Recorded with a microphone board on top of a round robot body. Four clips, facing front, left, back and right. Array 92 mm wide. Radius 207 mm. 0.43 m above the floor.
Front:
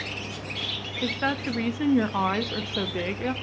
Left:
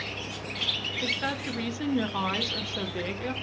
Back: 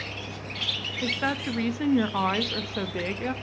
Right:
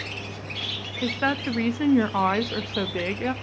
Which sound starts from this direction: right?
A woman speaking, at 1.0 s.